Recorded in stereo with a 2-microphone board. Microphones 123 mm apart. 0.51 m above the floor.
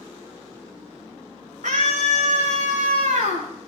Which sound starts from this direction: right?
A scream, at 1.6 s.